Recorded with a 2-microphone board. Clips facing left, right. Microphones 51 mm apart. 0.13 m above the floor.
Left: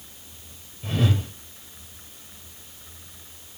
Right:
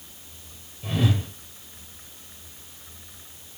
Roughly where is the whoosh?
Centre.